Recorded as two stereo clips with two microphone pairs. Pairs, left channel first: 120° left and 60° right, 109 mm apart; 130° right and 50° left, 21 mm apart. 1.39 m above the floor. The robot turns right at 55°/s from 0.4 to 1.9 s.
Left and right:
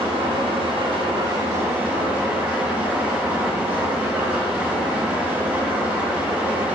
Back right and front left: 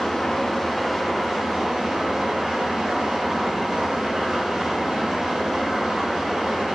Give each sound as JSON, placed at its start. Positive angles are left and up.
{"t": 0.0, "sound": "an engine running", "azimuth_deg": -70, "distance_m": 0.9}